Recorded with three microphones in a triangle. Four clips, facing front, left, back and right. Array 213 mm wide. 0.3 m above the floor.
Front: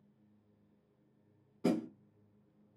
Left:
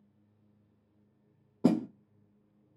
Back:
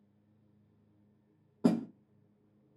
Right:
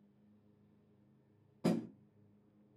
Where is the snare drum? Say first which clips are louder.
Left 8 dB, back 4 dB; 95° left, 0.5 m.